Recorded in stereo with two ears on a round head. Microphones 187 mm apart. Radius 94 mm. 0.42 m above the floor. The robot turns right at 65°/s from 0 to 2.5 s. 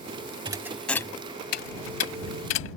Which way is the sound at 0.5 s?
25° right (ahead or behind).